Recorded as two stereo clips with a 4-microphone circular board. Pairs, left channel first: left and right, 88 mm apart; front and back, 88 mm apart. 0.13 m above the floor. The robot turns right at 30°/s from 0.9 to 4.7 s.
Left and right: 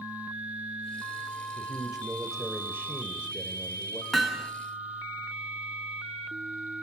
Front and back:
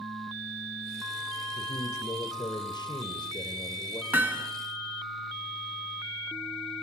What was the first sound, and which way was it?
A man speaking, 25° right.